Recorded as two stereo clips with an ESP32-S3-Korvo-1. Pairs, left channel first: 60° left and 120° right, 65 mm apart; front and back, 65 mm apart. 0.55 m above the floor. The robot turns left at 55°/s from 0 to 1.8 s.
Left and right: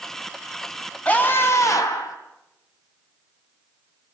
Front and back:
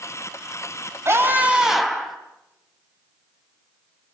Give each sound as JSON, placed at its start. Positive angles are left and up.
{"t": 1.1, "sound": "a scream", "azimuth_deg": 130, "distance_m": 4.0}